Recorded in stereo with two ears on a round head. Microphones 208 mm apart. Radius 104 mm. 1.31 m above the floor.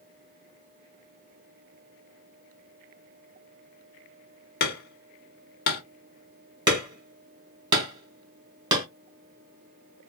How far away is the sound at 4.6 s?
About 1.3 m.